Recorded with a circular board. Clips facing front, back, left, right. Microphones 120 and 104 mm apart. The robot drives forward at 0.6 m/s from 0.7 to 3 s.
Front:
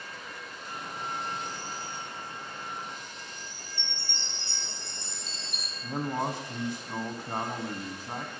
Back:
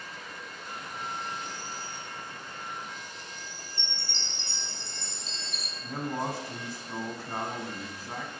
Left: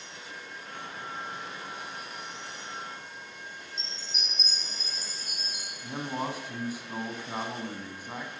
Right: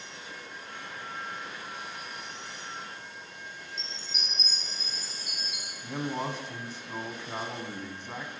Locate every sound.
3.8 s a chime: 35° left, 3 m
5.8 s a man speaking: 20° left, 1.0 m